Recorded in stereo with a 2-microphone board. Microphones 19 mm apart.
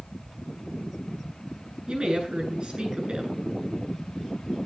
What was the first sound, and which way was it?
A woman speaking, 50° right (ahead or behind).